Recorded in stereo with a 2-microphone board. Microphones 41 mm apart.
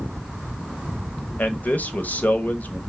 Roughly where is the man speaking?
Left.